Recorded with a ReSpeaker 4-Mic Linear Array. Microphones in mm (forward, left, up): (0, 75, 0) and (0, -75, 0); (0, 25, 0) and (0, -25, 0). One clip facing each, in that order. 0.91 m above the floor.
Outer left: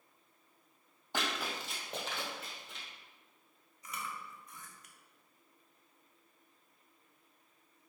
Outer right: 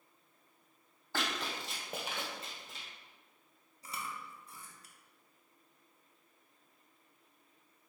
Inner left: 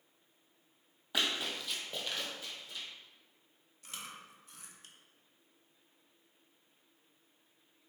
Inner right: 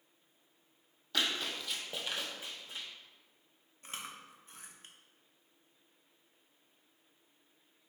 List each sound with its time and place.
1.1 s running footsteps: 20° left (ahead or behind), 1.2 m; by 2.9 s 40° right (ahead or behind), 1.3 m
3.8 s chewing: 30° right (ahead or behind), 0.5 m